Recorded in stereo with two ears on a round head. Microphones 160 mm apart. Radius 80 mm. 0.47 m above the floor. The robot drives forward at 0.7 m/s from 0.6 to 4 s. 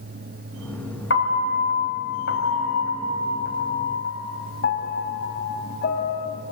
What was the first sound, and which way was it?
A piano, 70° left (ahead or behind).